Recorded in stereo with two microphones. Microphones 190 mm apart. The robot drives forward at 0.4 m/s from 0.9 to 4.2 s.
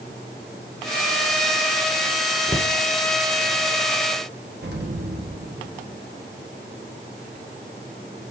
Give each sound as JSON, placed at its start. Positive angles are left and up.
{"t": 2.5, "sound": "a cupboard door", "side_deg": 35, "distance_m": 0.9}
{"t": 4.6, "sound": "an explosion", "side_deg": -60, "distance_m": 1.4}